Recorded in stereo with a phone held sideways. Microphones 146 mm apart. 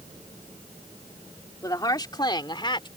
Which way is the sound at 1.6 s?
25° left (ahead or behind).